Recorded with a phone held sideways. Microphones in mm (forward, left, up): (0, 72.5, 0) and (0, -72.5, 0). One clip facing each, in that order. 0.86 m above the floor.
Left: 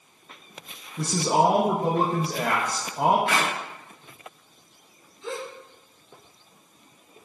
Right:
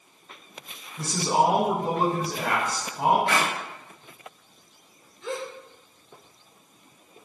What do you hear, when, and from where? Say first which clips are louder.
1.0 s a man speaking: left 1 dB; 60° left (ahead or behind), 0.6 m
3.3 s a clap: even; 35° right (ahead or behind), 1.6 m
5.2 s a gasp: right 1 dB; 20° left (ahead or behind), 1.7 m